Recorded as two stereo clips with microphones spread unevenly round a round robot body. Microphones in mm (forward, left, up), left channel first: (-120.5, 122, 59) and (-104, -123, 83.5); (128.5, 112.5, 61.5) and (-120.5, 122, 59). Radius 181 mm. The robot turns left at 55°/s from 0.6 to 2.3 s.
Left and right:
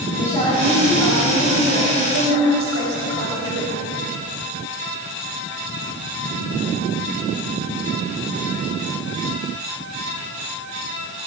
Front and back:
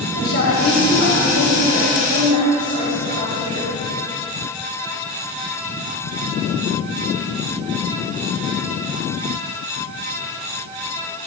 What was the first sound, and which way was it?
A woman speaking, 25° left.